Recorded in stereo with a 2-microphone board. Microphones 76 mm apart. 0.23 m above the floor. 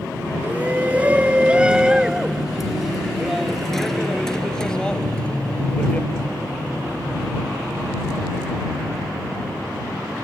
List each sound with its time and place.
0.4 s a shout: 25° right (ahead or behind); by 6.1 s 15° left (ahead or behind)